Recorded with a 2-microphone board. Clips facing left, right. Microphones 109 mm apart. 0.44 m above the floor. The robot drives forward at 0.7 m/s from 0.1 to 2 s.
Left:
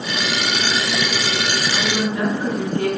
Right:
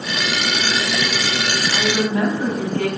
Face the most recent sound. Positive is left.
turn(degrees=-70)  # may be behind; listen again after turning